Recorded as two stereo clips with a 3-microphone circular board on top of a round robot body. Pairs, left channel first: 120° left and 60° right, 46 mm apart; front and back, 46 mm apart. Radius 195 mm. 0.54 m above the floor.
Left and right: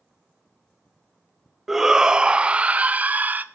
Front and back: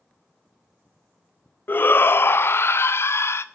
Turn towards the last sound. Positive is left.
turn(degrees=-10)